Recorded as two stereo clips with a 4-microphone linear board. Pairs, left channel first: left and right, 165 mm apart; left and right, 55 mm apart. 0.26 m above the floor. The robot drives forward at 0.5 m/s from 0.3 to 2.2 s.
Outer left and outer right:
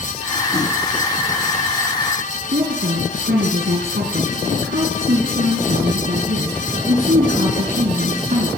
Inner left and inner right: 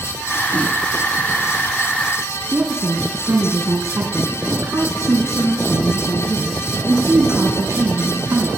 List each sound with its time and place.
2.5 s a woman speaking: 65° right (ahead or behind), 2.5 m